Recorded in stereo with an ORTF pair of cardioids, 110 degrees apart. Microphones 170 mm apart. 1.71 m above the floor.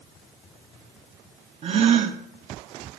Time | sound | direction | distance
1.6 | a gasp | 35° right | 1.0 m